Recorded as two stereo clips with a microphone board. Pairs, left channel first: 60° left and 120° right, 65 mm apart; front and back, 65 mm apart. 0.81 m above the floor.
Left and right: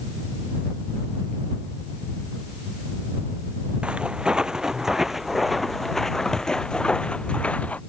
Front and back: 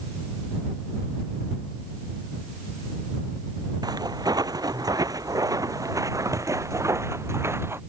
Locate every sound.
3.8 s footsteps: 165° left; by 7.8 s 130° left